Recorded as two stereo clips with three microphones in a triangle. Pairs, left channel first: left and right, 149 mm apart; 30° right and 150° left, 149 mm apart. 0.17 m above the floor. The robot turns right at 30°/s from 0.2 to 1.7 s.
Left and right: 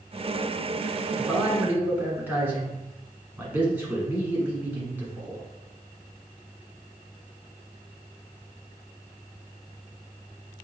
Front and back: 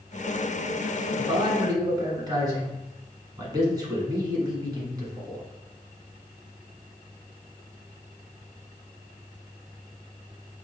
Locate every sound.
1.2 s a man speaking: 175° right, 1.5 m; by 5.4 s 160° right, 1.5 m